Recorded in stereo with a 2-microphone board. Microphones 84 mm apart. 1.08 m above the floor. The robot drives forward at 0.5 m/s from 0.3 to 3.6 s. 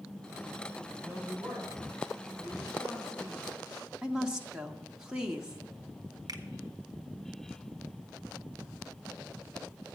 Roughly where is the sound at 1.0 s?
Right.